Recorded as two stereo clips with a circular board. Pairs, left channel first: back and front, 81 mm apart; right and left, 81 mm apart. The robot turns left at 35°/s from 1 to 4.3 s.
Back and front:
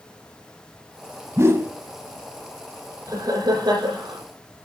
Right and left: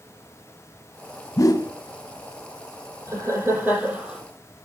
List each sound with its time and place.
1.4 s a whoosh: 50° right, 0.7 m; by 1.7 s 60° right, 0.7 m
3.1 s laughter: 40° left, 6.5 m; by 4.2 s straight ahead, 6.5 m